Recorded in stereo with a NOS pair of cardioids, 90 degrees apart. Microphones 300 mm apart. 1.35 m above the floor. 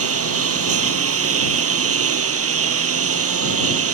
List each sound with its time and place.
0.0 s a lawn mower: 45° right